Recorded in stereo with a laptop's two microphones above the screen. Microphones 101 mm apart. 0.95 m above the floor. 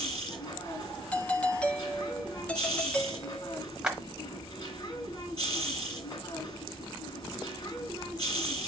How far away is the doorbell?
About 1.1 m.